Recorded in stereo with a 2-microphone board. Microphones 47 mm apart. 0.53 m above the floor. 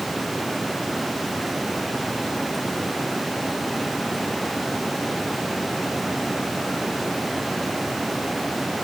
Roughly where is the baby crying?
I don't hear a baby crying.